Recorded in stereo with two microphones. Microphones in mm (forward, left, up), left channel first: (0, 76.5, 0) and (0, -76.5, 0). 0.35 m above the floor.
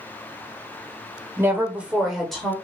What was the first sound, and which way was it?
A woman speaking, 15° right (ahead or behind).